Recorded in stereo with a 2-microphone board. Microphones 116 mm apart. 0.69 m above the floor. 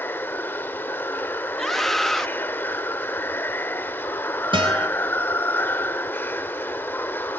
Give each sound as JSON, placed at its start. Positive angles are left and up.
{"t": 0.0, "sound": "running water", "side_deg": 20, "distance_m": 0.8}
{"t": 1.6, "sound": "a scream", "side_deg": 0, "distance_m": 0.9}
{"t": 4.5, "sound": "a guitar", "side_deg": -45, "distance_m": 4.0}